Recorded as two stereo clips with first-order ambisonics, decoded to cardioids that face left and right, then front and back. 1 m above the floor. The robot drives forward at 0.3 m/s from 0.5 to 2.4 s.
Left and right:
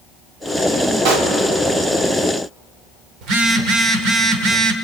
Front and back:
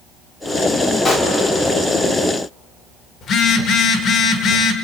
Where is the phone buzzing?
55° right, 1.9 m.